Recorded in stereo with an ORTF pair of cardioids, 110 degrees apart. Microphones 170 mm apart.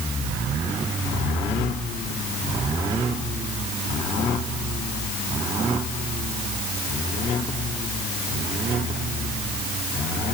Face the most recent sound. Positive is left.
No sound to turn to.